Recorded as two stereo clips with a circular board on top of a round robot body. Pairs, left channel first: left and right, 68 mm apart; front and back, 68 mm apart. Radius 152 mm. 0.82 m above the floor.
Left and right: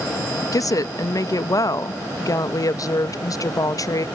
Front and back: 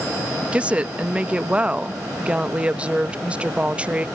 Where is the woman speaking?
110° left.